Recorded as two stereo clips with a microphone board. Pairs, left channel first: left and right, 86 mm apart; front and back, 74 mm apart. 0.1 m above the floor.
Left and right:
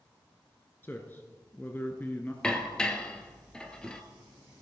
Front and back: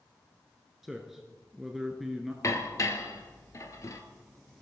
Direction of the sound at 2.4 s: 15° left.